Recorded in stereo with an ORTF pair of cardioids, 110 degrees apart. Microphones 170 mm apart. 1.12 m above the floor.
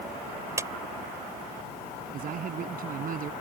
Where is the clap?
20° right.